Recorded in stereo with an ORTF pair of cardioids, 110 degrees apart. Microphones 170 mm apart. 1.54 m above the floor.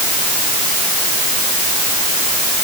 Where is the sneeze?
I don't hear a sneeze.